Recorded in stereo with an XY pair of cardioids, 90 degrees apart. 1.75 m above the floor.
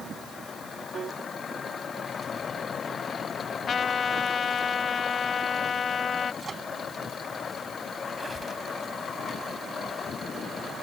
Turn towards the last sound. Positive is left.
turn(degrees=-30)